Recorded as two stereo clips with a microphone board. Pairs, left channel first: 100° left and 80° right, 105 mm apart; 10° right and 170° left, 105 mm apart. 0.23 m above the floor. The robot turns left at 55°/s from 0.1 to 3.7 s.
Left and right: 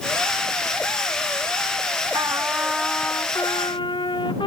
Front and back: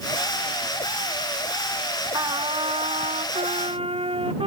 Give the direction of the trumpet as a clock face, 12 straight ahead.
4 o'clock.